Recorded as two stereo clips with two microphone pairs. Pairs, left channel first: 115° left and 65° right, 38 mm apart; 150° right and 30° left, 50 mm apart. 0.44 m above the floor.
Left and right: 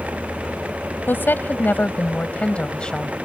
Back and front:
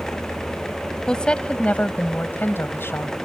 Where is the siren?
No siren in this recording.